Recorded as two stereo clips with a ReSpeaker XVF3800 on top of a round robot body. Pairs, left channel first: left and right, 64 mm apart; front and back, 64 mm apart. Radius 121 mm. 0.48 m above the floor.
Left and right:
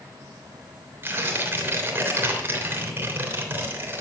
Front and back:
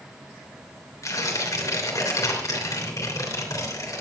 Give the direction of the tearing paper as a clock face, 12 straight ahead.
1 o'clock.